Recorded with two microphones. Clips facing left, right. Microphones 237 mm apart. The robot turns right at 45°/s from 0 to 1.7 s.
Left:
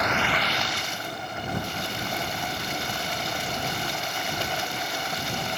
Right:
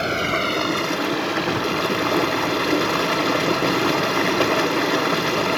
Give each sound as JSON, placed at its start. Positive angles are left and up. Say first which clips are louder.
{"t": 0.0, "sound": "running water", "louder": "right 5 dB", "azimuth_deg": -150}